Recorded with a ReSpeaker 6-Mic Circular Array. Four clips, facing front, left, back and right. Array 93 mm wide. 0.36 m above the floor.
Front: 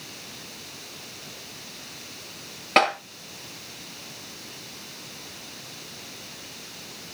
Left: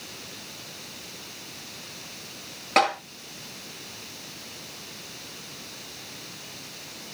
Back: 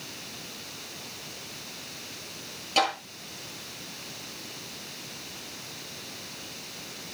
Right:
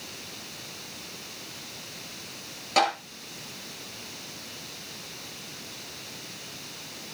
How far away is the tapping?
About 8.5 m.